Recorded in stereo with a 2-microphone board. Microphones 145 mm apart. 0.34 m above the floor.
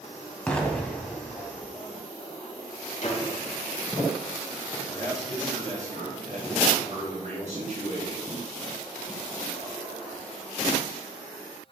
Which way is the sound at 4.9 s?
60° right (ahead or behind).